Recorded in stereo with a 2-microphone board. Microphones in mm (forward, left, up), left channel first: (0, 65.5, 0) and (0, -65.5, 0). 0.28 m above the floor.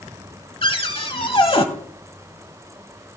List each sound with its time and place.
0.6 s a cupboard door: 45° left (ahead or behind), 0.9 m